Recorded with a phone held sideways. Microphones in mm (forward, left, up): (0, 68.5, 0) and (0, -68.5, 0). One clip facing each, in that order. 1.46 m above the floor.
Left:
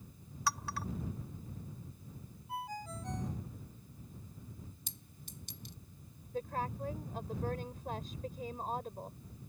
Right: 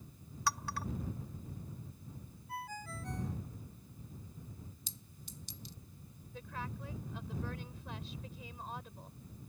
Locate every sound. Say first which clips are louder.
0.5 s a clink: even; centre (ahead or behind)
2.5 s a ringtone: left 3 dB; 20° left (ahead or behind)
4.9 s a clink: even; 55° left (ahead or behind)
6.3 s a woman speaking: left 7 dB; 45° left (ahead or behind)